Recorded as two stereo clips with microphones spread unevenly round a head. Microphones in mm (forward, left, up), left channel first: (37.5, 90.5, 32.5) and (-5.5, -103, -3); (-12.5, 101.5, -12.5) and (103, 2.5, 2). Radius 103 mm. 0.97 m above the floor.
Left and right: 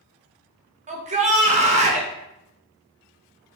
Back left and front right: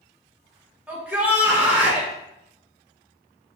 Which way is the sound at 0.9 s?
125° right.